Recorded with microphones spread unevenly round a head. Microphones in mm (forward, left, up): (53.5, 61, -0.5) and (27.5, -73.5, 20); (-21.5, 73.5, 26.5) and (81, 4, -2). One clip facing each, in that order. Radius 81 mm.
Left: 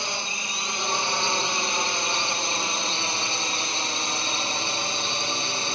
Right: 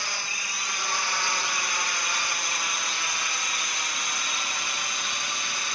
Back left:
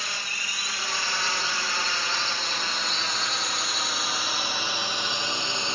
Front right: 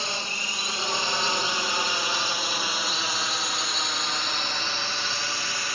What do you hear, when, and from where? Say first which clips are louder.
0.0 s a drone: left 4 dB, front right 4 dB; 20° left; by 5.8 s 80° left